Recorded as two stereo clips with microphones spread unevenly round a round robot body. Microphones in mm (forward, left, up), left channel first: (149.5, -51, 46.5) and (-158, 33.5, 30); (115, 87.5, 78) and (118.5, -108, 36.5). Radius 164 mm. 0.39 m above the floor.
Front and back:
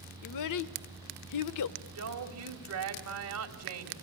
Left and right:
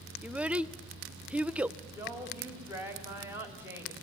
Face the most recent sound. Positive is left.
turn(degrees=-165)